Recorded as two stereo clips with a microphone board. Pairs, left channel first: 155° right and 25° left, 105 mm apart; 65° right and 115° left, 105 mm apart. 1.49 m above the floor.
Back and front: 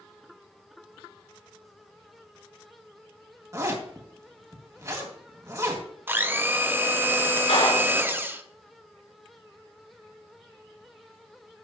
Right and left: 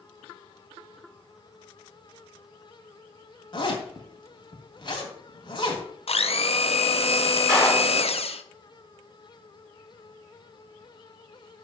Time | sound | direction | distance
3.5 | a zipper | 30° right | 2.5 m
6.1 | a blender | 45° right | 0.8 m
7.5 | a clap | 155° right | 5 m